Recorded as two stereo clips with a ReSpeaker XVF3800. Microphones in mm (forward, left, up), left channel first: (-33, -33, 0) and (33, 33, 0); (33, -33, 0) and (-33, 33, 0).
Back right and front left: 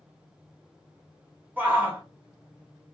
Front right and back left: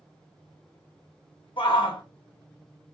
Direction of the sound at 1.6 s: 25° right.